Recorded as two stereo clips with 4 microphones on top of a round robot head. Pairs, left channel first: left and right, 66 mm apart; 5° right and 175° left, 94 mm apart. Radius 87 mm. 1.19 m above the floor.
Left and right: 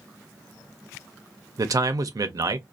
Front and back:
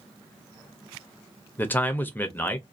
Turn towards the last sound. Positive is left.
turn(degrees=-70)